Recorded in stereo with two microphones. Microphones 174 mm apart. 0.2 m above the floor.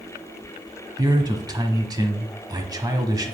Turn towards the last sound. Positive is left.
turn(degrees=-25)  # may be behind; listen again after turning